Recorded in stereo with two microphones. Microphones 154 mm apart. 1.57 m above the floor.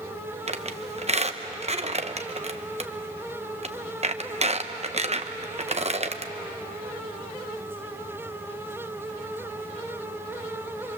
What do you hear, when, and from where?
0.5 s a squeak: 45° right (ahead or behind), 0.9 m